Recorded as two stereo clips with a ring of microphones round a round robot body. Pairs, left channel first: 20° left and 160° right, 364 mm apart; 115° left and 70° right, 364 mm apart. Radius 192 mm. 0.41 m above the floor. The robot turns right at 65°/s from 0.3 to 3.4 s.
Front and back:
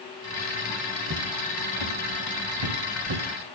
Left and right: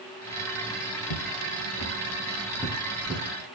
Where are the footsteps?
140° left, 3 m; by 3.2 s 135° right, 3.5 m.